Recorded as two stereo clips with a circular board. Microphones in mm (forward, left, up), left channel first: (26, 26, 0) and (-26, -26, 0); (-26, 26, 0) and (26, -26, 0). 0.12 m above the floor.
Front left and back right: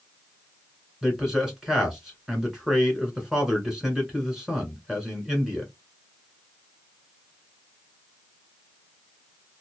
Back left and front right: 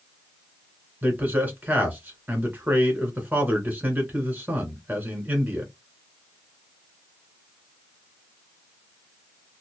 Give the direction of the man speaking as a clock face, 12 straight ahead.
2 o'clock.